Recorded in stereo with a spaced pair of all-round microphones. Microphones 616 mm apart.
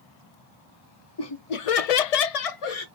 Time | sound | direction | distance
1.2 | laughter | 40° left (ahead or behind) | 0.8 m